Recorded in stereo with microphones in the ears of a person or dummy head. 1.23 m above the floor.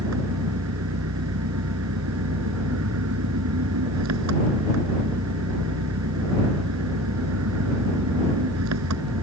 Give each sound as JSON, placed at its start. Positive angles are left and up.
{"t": 0.0, "sound": "an engine running", "side_deg": -90}